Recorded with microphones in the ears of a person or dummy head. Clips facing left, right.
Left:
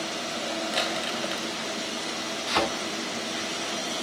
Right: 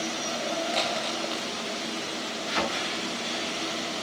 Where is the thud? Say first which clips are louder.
Left 4 dB; 65° left (ahead or behind), 5.5 m.